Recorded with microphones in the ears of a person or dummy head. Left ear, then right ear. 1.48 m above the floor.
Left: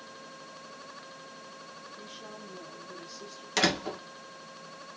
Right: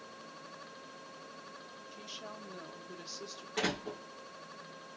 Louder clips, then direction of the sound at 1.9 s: Right 2 dB; 55° right (ahead or behind).